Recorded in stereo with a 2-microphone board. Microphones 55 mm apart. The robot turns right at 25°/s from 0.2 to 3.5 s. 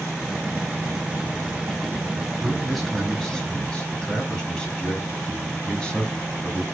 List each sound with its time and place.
2.4 s a man speaking: 5° right (ahead or behind), 1.6 m; by 6.6 s 15° left (ahead or behind), 1.6 m